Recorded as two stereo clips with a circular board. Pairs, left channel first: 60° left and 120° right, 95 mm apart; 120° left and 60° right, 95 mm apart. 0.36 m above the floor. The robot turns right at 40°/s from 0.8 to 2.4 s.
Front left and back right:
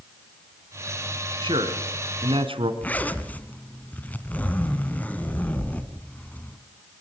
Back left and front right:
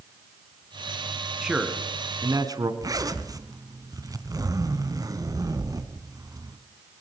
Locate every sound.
1.4 s a man speaking: 145° right, 3 m; by 2.7 s 105° right, 3 m
2.8 s a zipper: 10° right, 1.8 m